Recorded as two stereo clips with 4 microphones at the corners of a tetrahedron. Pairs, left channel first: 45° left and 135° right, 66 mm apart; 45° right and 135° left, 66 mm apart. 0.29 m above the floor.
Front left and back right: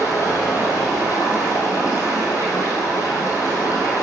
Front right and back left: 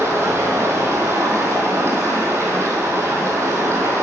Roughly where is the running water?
Left.